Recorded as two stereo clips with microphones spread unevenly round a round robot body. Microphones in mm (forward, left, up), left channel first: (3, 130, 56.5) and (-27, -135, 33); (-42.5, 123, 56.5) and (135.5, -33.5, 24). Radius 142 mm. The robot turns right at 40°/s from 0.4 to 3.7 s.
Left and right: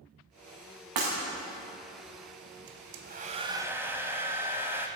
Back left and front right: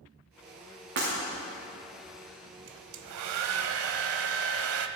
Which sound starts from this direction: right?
Breaking glass, at 1.0 s.